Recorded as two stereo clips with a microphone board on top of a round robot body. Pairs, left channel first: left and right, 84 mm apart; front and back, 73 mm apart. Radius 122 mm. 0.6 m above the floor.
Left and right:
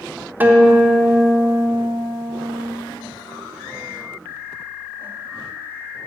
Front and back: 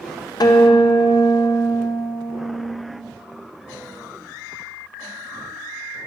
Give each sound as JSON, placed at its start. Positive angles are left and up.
{"t": 0.4, "sound": "a guitar", "azimuth_deg": -20, "distance_m": 1.3}